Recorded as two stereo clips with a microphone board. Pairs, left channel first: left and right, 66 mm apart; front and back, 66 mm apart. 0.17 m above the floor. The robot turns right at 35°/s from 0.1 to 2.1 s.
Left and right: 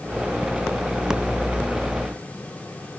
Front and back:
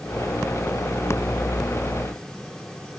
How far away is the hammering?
No hammering in this recording.